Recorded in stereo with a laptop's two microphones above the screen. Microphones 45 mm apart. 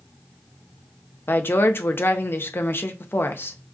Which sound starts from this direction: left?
A woman speaking, at 1.3 s.